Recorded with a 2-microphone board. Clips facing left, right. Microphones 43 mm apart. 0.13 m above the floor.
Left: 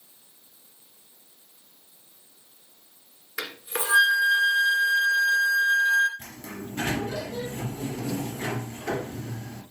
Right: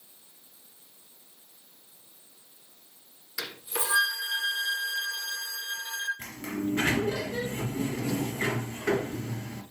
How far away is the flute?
About 1.6 m.